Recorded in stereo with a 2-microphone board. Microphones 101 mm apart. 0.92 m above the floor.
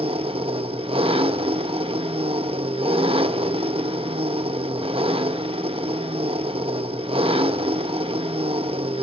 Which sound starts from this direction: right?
An engine running, at 0.0 s.